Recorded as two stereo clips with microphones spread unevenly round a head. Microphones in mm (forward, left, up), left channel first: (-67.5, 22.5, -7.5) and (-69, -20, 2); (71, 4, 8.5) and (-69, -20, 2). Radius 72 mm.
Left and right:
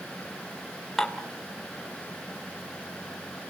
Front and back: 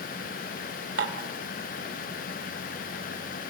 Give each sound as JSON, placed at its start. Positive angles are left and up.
{"t": 1.0, "sound": "dishes clattering", "azimuth_deg": 180, "distance_m": 3.5}